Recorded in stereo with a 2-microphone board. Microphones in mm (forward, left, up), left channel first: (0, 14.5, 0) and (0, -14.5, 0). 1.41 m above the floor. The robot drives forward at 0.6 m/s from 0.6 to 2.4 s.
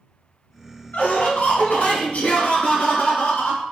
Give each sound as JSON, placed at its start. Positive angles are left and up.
{"t": 0.9, "sound": "laughter", "side_deg": 90, "distance_m": 1.2}